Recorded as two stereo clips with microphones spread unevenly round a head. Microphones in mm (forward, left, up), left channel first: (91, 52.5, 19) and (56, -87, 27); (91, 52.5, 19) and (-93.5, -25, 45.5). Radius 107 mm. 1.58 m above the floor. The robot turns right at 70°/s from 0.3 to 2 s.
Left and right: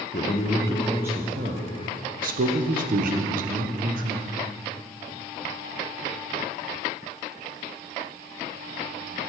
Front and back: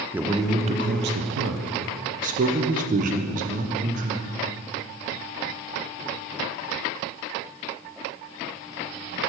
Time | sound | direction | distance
0.1 | a man speaking | 130° left | 0.6 m